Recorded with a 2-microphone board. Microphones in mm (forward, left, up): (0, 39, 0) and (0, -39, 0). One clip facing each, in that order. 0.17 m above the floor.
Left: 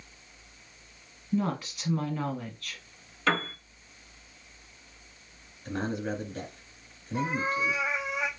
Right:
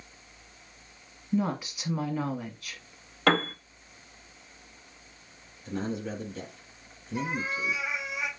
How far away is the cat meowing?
About 1.8 m.